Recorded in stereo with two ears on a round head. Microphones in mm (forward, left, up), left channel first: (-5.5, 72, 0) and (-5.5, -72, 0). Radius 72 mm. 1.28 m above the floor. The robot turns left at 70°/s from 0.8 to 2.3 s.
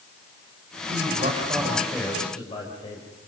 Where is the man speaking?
115° right, 5 m; by 3.0 s 150° left, 5 m.